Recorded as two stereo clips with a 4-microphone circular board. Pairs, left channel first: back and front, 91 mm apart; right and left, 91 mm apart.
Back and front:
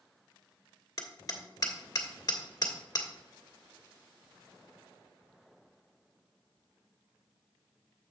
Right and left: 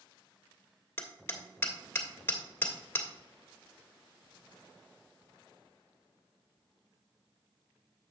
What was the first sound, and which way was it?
Hammering, 145° right.